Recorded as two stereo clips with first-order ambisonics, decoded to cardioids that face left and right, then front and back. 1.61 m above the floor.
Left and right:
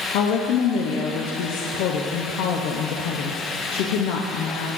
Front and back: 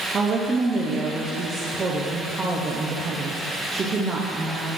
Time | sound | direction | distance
0.1 | a woman speaking | 110° left | 0.6 m